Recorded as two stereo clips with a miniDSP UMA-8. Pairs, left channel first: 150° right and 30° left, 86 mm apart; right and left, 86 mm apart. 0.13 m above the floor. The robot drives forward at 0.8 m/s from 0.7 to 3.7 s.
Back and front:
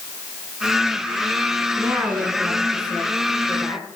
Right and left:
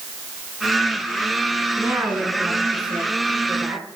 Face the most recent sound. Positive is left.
turn(degrees=165)